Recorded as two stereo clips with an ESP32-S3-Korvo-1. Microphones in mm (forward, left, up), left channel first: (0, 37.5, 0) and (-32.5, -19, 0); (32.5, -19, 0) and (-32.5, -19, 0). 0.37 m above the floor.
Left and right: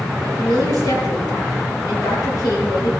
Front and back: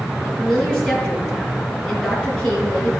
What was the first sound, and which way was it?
A woman speaking, 70° left.